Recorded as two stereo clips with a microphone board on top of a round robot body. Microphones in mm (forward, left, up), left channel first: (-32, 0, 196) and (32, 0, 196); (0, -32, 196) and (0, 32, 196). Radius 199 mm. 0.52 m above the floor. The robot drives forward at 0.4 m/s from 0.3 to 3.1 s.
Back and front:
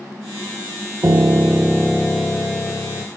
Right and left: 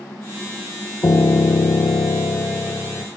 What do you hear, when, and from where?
1.0 s a piano: 50° right, 0.6 m; by 3.1 s 145° right, 0.7 m